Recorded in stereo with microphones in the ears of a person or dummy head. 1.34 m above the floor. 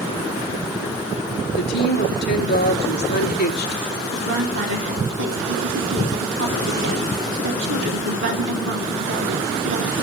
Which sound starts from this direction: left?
A woman speaking, at 1.5 s.